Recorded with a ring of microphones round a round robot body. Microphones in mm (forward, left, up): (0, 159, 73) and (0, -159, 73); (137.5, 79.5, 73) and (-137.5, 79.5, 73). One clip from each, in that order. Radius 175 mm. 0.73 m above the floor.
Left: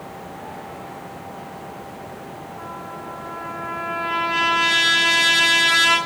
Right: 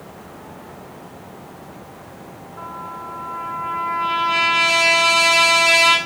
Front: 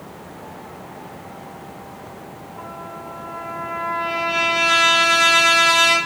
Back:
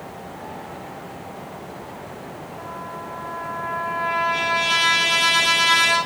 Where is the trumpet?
75° right, 3.5 m.